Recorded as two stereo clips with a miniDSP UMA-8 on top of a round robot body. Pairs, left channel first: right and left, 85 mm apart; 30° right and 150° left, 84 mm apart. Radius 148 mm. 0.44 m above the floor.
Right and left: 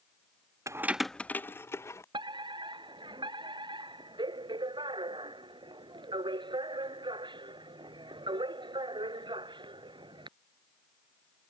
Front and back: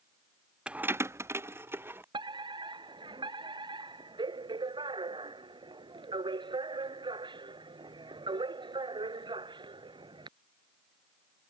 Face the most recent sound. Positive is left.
turn(degrees=120)